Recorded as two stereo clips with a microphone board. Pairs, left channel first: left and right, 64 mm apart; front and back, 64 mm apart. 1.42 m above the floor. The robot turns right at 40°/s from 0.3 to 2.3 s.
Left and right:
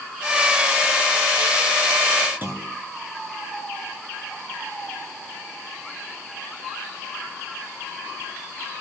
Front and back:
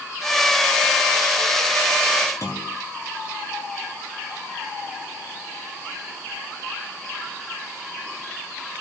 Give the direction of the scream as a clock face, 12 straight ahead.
No scream in this recording.